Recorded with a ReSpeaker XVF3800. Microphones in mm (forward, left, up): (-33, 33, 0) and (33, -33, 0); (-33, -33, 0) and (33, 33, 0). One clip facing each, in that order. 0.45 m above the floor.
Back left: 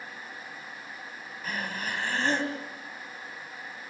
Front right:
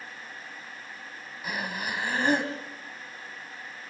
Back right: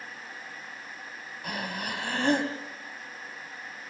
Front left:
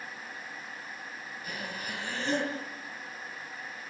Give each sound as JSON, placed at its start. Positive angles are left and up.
{"t": 1.4, "sound": "breathing", "azimuth_deg": -125, "distance_m": 3.5}